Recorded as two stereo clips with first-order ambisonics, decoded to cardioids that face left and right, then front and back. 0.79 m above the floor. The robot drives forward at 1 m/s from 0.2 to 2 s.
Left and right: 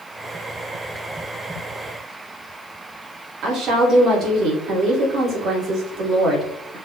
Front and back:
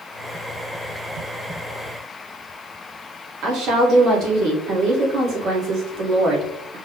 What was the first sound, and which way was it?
A woman speaking, 145° right.